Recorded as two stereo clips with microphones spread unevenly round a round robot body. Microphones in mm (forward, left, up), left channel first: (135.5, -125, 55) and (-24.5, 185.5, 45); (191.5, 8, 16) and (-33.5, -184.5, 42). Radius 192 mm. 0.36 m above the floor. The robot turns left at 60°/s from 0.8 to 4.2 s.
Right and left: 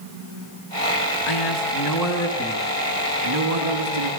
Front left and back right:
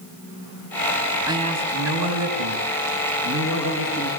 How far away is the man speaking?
About 7 m.